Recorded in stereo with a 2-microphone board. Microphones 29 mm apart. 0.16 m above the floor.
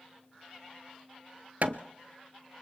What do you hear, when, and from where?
1.6 s hammering: 60° right (ahead or behind), 0.9 m